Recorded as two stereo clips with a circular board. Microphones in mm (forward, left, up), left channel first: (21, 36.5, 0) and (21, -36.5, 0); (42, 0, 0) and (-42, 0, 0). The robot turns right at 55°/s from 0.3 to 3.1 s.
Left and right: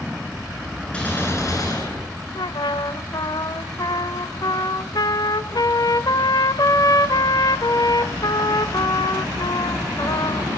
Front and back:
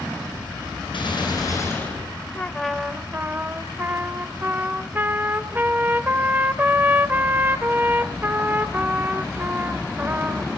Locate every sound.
0.9 s a gunshot: 15° left, 9 m; by 2.1 s 80° left, 9 m
2.4 s a trumpet: 75° left, 1.1 m; by 10.5 s 115° left, 1.1 m